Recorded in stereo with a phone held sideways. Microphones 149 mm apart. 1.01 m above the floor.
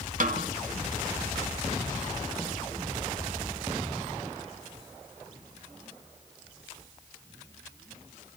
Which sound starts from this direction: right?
A snare drum, at 0.2 s.